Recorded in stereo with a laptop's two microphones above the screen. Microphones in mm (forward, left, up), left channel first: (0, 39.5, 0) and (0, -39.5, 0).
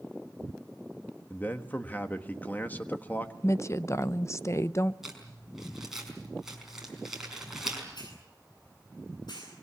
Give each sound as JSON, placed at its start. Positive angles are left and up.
{"t": 1.3, "sound": "a man speaking", "side_deg": 25, "distance_m": 1.3}
{"t": 3.4, "sound": "a woman speaking", "side_deg": 40, "distance_m": 0.8}
{"t": 5.0, "sound": "crumpling", "side_deg": -5, "distance_m": 5.0}
{"t": 8.0, "sound": "a hiss", "side_deg": 70, "distance_m": 9.5}